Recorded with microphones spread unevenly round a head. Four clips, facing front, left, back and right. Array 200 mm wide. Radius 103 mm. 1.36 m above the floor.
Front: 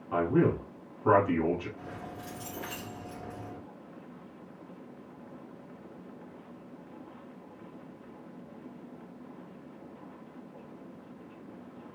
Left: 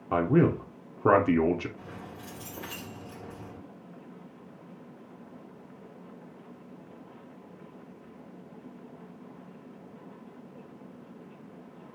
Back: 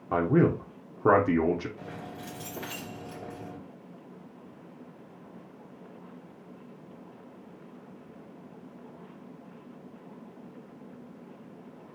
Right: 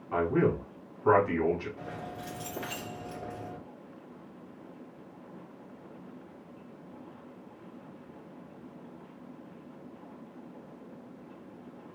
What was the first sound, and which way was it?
A man speaking, 130° left.